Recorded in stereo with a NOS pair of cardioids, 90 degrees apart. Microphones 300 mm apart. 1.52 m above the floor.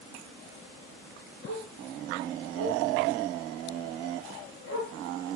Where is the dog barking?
60° left, 5.5 m.